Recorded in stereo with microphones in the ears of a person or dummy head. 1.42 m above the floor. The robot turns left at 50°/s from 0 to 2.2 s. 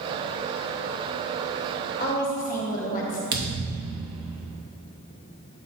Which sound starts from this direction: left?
A woman speaking, at 2.0 s.